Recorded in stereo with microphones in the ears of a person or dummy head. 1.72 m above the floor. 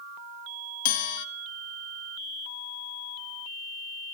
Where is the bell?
50° left (ahead or behind), 1.9 m.